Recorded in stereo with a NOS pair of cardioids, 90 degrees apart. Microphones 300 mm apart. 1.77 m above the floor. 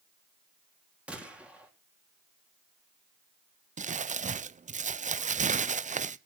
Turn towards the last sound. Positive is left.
turn(degrees=-25)